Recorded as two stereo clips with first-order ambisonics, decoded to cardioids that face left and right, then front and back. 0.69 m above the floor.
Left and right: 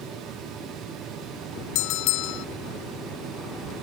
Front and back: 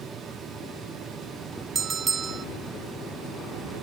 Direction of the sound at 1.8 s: 110° left.